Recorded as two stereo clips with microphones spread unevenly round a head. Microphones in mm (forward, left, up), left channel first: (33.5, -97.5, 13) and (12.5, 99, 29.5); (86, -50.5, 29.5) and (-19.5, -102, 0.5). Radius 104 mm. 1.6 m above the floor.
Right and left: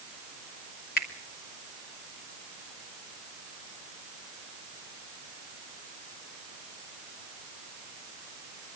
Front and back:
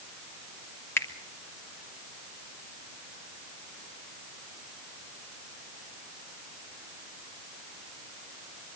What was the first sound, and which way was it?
A finger snap, 40° right.